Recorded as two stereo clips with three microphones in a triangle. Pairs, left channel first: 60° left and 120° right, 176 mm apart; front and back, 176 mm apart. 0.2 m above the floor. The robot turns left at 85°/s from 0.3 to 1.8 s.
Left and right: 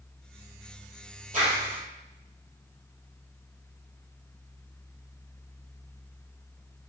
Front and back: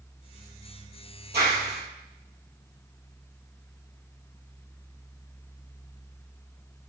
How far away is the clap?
About 3.5 m.